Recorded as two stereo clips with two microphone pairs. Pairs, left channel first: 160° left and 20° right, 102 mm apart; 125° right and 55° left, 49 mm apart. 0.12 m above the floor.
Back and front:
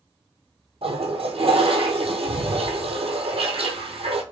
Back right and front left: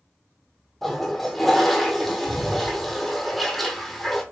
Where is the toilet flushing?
40° right, 0.8 m.